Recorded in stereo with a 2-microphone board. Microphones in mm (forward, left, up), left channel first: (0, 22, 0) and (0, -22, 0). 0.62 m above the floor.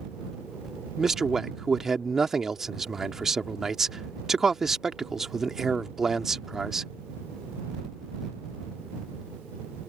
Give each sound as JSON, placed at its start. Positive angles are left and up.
{"t": 1.0, "sound": "a man speaking", "side_deg": -5}